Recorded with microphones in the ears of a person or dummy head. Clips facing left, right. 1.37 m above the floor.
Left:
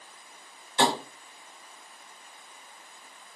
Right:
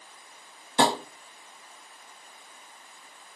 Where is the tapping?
30° right (ahead or behind), 0.8 m.